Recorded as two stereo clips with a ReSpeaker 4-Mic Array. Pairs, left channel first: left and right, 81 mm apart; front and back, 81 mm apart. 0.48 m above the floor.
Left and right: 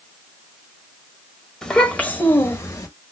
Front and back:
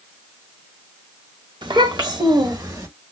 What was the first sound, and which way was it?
A child speaking, 175° left.